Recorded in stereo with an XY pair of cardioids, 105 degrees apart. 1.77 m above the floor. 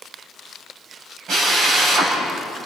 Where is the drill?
65° right, 8 m.